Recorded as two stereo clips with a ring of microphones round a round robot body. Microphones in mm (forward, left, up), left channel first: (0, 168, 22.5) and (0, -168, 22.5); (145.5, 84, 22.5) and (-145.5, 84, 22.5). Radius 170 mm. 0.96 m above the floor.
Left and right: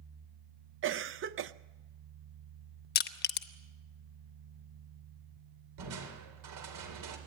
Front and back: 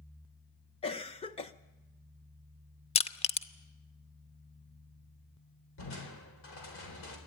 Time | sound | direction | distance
0.8 | a cough | 60° right | 0.6 m
3.0 | crushing | 55° left | 0.6 m
5.8 | crushing | 55° right | 3.5 m